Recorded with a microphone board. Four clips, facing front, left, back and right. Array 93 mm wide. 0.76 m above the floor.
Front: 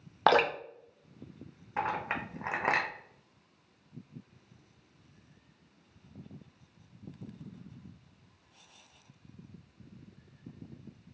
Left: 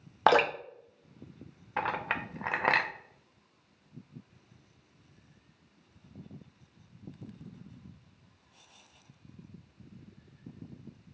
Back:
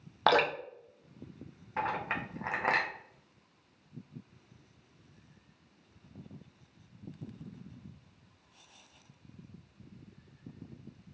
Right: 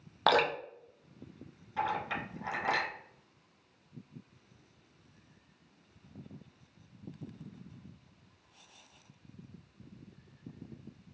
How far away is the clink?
About 0.5 m.